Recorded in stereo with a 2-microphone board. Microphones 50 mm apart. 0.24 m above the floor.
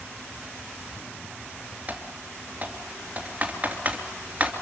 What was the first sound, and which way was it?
Typing on a keyboard, 30° right (ahead or behind).